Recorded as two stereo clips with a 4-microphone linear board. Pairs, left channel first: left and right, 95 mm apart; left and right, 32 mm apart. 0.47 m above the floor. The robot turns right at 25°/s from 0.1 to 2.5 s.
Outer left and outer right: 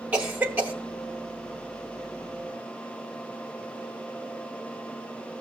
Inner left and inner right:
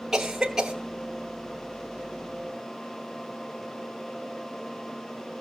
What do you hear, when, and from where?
0.1 s a cough: 15° right (ahead or behind), 0.8 m; by 0.7 s 20° right (ahead or behind), 0.8 m